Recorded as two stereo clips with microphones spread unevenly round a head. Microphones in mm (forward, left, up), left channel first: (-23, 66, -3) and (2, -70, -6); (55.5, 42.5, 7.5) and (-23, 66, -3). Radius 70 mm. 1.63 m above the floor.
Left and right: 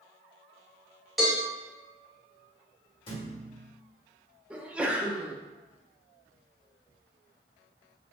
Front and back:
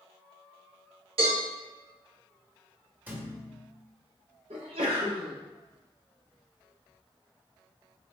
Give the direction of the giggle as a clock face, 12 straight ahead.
No giggle in this recording.